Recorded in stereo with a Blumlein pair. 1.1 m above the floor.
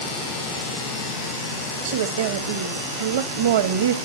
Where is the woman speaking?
55° right, 1.4 m.